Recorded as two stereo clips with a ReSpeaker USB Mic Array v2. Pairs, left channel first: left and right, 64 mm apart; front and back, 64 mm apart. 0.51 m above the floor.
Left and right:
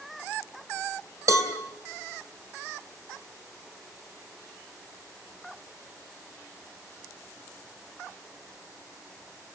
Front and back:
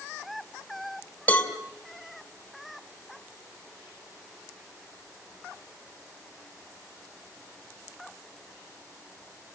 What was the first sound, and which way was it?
A cowbell, 60° right.